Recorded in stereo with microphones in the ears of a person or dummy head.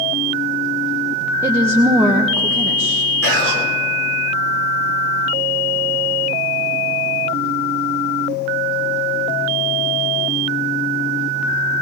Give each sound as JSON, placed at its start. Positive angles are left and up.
{"t": 1.4, "sound": "a woman speaking", "side_deg": -15, "distance_m": 0.7}
{"t": 3.2, "sound": "whispering", "side_deg": -85, "distance_m": 3.0}